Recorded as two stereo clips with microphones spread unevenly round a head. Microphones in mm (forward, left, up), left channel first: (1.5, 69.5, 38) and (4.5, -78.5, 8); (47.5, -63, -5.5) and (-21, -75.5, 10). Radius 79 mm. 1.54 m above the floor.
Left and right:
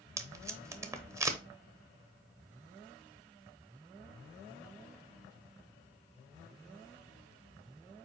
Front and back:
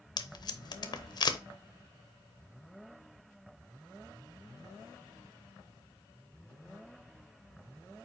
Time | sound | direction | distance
0.2 | tape being pulled | 15° right | 0.9 m